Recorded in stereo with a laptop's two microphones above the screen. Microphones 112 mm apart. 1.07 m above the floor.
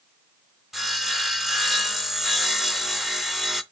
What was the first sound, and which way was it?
Sawing, 5° right (ahead or behind).